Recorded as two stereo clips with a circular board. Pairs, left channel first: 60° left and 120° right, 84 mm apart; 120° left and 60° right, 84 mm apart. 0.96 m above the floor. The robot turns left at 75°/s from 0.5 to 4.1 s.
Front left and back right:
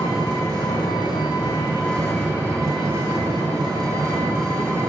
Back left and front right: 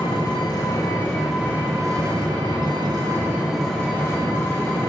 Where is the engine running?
90° left, 4 m; by 4.9 s straight behind, 4 m.